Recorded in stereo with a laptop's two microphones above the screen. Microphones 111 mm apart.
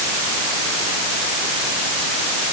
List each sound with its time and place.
Only background noise.